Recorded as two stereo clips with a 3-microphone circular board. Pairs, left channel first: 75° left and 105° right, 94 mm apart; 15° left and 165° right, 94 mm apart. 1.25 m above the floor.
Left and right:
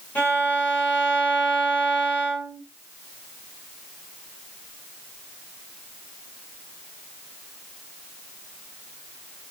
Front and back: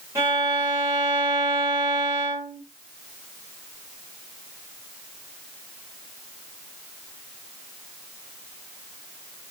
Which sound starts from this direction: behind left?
A violin, at 0.1 s.